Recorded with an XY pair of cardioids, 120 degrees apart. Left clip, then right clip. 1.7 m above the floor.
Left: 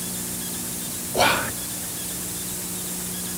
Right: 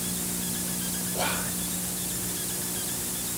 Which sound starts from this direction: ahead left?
Whispering, at 1.1 s.